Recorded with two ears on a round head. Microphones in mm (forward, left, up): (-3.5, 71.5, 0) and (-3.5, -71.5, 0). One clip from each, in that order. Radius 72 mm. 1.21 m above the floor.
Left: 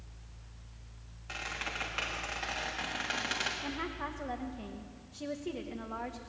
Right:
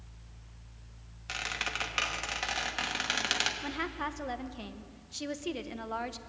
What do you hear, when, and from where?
1.3 s a squeak: 75° right (ahead or behind), 1.4 m
3.6 s a woman speaking: 70° right (ahead or behind), 0.8 m